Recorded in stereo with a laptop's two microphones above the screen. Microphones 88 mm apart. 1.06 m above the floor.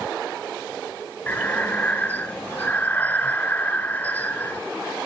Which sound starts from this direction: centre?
Breathing, at 1.3 s.